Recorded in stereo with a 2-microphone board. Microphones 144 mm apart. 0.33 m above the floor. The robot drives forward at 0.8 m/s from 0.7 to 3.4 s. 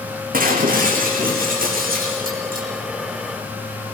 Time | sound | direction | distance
0.3 | breaking glass | 80° right | 5.5 m